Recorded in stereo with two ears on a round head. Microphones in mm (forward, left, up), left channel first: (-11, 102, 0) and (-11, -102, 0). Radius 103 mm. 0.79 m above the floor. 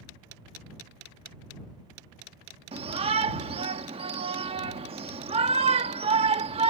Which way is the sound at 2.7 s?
25° right (ahead or behind).